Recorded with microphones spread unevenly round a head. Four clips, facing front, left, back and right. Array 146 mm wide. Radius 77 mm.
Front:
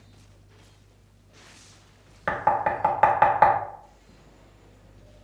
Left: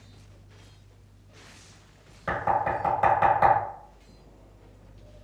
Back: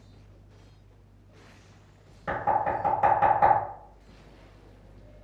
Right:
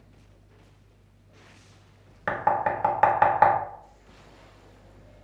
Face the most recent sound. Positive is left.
turn(degrees=-35)